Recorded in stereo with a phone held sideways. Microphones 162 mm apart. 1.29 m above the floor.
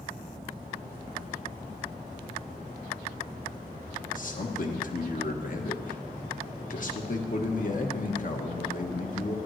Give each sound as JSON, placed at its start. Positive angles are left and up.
{"t": 4.2, "sound": "a man speaking", "side_deg": 55, "distance_m": 1.1}